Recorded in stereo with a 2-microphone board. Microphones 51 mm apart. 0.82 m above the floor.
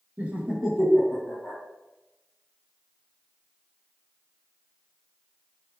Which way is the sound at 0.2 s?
30° right (ahead or behind).